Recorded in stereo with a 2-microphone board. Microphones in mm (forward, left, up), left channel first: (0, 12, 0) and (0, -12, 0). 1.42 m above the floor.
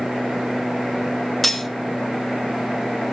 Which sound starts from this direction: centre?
Cutlery clinking, at 1.4 s.